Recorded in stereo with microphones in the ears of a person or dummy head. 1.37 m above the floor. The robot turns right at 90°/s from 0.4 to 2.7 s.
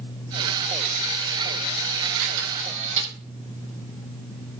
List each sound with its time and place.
2.2 s a camera shutter: 80° right, 9 m; by 3.1 s 35° right, 9 m